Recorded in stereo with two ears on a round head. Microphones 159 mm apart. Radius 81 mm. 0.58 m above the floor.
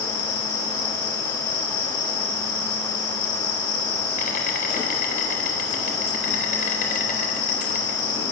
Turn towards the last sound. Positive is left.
turn(degrees=50)  # may be behind; listen again after turning